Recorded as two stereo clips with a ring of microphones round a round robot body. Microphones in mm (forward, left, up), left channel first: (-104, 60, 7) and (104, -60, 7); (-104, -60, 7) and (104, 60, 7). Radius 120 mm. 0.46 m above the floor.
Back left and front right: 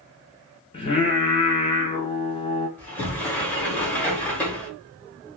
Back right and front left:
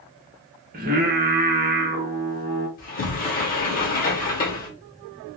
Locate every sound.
0.7 s singing: 80° left, 0.9 m
2.8 s a sliding door: 130° right, 1.0 m